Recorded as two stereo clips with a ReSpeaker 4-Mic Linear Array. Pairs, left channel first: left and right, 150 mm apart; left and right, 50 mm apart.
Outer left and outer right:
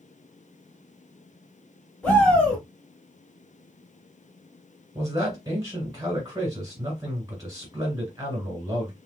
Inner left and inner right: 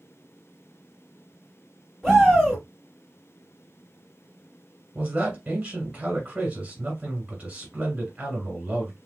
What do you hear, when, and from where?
2.0 s a shout: 10° left (ahead or behind), 2 m
5.0 s a man speaking: 25° right (ahead or behind), 1.8 m